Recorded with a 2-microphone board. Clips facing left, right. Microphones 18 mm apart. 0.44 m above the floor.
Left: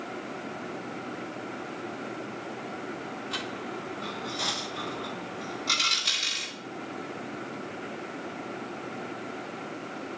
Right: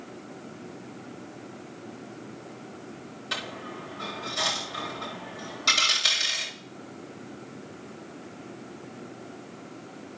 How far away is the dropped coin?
About 7 m.